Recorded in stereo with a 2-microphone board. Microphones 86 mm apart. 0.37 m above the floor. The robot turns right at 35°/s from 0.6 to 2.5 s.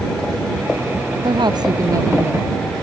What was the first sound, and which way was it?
A woman speaking, 65° right.